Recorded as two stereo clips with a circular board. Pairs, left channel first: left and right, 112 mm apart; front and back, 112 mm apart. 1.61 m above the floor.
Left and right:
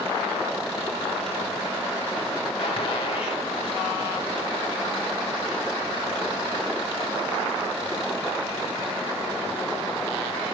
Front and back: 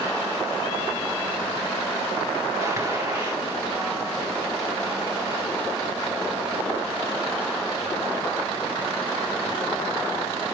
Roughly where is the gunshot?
Behind left.